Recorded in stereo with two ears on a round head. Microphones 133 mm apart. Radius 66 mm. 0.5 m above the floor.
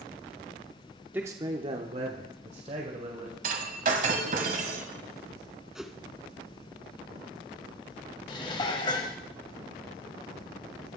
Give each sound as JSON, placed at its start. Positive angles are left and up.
{"t": 1.1, "sound": "a man speaking", "side_deg": -10, "distance_m": 0.8}
{"t": 3.4, "sound": "breaking glass", "side_deg": -60, "distance_m": 1.7}
{"t": 5.8, "sound": "a whoosh", "side_deg": -5, "distance_m": 0.9}
{"t": 8.3, "sound": "dishes clattering", "side_deg": 35, "distance_m": 1.5}